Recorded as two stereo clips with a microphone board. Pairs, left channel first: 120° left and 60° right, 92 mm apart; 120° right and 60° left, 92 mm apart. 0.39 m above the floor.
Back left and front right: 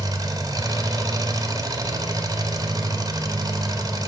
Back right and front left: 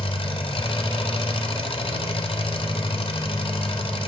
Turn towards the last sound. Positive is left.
turn(degrees=-110)